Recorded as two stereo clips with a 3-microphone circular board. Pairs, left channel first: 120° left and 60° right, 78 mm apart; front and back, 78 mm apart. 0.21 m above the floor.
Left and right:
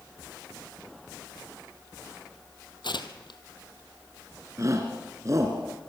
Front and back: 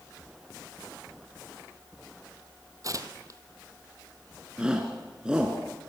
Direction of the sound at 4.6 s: 105° right.